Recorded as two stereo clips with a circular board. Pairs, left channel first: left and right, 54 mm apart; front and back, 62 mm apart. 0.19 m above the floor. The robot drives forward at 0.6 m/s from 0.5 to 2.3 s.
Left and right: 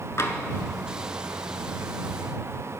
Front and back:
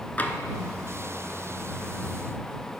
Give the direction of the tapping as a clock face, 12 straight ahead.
10 o'clock.